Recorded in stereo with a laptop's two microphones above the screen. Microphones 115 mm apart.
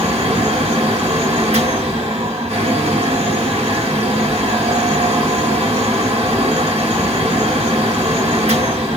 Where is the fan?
80° right, 2.5 m.